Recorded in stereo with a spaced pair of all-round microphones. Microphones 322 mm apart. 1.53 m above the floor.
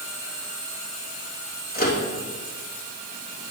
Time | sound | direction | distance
1.7 | a microwave | 30° left (ahead or behind) | 2.5 m